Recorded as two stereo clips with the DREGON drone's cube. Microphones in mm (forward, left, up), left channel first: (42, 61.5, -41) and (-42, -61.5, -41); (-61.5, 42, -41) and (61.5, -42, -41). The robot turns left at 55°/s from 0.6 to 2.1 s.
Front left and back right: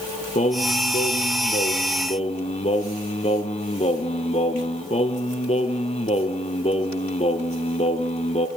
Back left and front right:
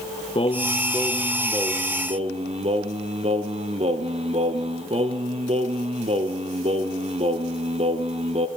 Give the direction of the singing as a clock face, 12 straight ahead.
9 o'clock.